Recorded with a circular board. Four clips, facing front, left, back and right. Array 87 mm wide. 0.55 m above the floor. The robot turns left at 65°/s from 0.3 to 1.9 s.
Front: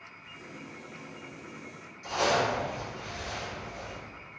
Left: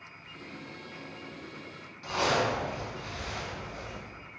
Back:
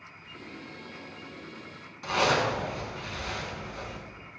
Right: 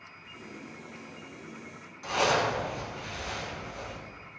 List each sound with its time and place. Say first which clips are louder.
0.2 s tape being pulled: even, back 2 dB; 165° right, 1.9 m; by 1.9 s 90° left, 1.9 m
2.0 s a zipper: right 1 dB, back 1 dB; 170° right, 2.5 m